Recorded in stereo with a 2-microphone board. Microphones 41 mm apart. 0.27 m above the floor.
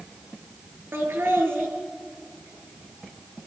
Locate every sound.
0.9 s laughter: 75° right (ahead or behind), 4.5 m